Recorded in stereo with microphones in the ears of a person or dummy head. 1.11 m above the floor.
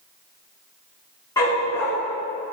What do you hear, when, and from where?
1.4 s a dog barking: 20° left (ahead or behind), 2.5 m